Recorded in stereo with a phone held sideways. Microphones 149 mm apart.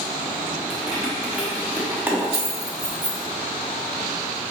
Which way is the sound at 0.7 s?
5° right (ahead or behind).